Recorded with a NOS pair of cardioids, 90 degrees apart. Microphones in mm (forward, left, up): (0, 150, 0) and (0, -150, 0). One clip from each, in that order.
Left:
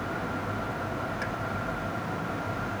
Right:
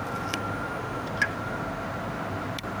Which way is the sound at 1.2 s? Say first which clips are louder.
Right 7 dB; 45° right.